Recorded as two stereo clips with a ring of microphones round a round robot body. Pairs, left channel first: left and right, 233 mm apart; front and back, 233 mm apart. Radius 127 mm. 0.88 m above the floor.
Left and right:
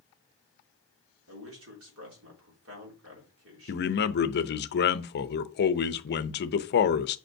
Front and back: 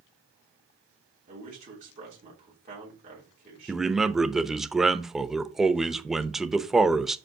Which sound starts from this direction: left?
A man speaking, at 3.7 s.